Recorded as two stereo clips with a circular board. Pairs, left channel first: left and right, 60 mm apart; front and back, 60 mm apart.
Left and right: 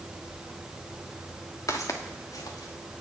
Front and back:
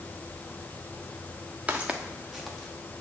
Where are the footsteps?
110° left, 1.4 m; by 3.0 s 75° left, 1.9 m.